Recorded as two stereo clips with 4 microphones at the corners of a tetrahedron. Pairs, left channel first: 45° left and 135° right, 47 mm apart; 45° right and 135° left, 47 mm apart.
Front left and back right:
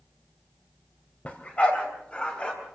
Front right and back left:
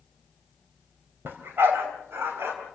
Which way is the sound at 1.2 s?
100° left.